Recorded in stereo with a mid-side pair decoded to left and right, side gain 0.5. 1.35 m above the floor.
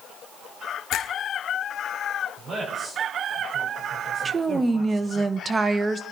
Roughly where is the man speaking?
Ahead right.